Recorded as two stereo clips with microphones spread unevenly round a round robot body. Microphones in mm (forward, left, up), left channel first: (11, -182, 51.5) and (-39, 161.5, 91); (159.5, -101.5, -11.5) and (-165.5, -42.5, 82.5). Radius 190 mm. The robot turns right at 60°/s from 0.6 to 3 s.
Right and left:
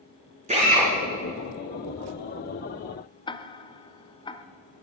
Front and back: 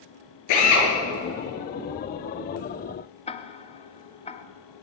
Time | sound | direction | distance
0.5 | a drill | 25° left | 4.5 m
3.3 | ticking | 25° right | 0.9 m